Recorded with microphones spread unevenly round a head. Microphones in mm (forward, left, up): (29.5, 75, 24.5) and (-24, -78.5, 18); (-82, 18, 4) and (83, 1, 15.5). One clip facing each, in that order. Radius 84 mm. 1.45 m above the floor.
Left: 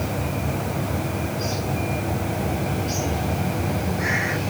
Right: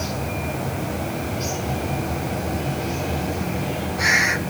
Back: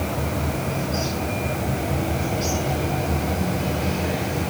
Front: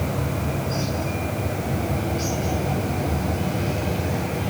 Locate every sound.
Only background noise.